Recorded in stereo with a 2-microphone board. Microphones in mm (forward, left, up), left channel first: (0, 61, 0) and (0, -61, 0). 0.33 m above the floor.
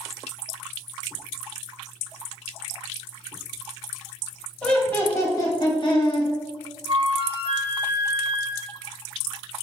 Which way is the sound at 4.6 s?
10° left (ahead or behind).